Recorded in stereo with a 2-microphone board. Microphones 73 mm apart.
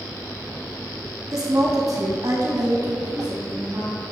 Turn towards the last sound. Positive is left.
turn(degrees=-65)  # may be behind; listen again after turning